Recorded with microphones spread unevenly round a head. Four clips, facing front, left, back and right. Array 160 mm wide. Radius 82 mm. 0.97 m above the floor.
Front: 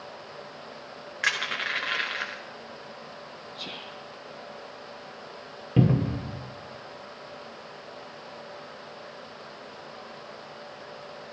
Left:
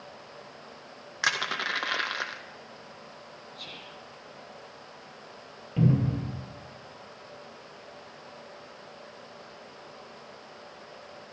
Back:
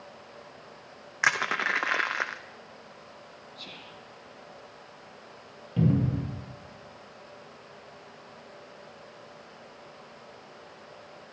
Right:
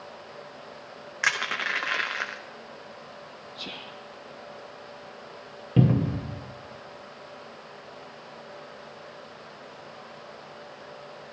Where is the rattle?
No rattle in this recording.